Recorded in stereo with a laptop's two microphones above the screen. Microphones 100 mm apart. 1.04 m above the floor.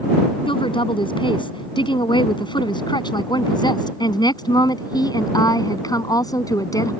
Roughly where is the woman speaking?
Left.